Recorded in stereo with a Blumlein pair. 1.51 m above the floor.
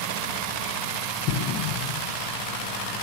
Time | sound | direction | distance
1.3 | an explosion | 45° left | 1.0 m